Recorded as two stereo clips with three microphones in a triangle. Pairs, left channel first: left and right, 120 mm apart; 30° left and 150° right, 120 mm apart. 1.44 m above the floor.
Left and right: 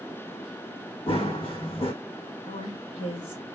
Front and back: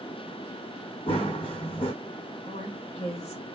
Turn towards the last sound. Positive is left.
turn(degrees=55)